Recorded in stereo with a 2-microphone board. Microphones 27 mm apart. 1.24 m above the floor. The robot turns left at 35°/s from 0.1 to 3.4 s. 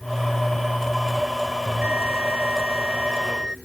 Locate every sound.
1.6 s a bell: 90° right; by 3.6 s 150° right